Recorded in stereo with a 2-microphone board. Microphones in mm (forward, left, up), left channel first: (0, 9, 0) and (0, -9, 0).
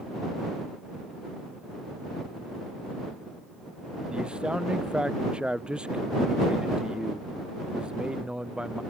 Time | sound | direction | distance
4.1 | a man speaking | 65° right (ahead or behind) | ?